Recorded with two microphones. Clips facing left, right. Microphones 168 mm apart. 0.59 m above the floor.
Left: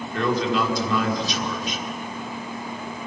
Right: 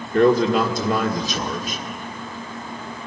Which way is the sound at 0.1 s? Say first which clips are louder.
Right 7 dB; 50° right (ahead or behind).